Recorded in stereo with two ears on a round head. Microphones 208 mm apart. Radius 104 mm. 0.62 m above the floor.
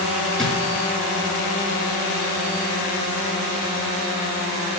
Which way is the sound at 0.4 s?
Centre (ahead or behind).